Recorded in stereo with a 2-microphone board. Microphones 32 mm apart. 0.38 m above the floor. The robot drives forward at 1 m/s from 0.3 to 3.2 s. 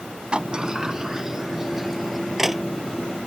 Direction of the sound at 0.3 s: 35° right (ahead or behind).